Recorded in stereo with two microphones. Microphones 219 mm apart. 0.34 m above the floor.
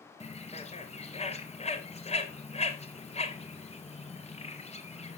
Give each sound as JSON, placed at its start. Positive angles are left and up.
{"t": 0.2, "sound": "a bird", "side_deg": 30, "distance_m": 1.1}